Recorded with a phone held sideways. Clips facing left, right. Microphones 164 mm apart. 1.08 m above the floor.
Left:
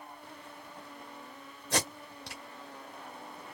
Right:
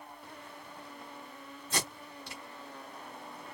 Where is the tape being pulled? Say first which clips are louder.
Left 4 dB; 80° left, 2.0 m.